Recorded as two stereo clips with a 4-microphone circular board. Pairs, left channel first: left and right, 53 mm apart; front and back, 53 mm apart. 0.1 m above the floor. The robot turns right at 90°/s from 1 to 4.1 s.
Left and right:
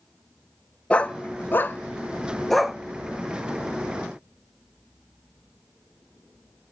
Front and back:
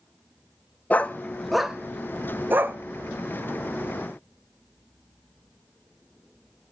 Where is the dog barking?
40° left, 0.5 m; by 2.8 s 165° right, 0.5 m.